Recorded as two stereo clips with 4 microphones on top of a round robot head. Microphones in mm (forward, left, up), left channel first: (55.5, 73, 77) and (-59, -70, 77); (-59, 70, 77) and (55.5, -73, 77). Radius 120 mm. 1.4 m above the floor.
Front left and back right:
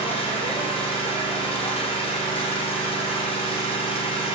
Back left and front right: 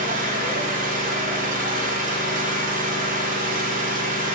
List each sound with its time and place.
0.0 s an engine running: 10° right, 4.5 m